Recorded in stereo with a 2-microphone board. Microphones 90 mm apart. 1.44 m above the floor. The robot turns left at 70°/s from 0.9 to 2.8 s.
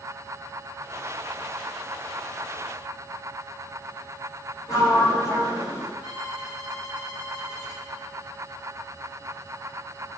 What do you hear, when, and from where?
4.7 s a sliding door: 45° left (ahead or behind), 8 m
6.0 s a violin: 60° left (ahead or behind), 4.5 m